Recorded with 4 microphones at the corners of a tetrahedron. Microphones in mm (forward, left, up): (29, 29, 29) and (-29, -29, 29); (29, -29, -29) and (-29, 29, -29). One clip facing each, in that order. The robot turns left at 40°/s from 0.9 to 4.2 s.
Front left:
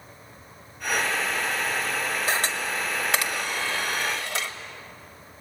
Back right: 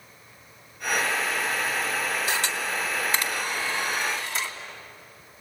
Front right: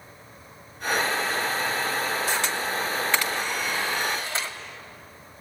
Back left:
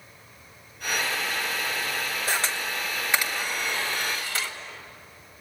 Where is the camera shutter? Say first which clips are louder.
Front left 1 dB, front right 2 dB; 95° left, 1.9 m; by 4.5 s 20° left, 1.9 m.